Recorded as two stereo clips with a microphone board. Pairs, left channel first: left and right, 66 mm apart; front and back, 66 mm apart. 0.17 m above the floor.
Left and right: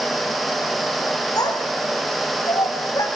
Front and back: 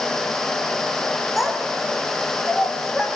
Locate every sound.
1.4 s a child speaking: 95° left, 5.5 m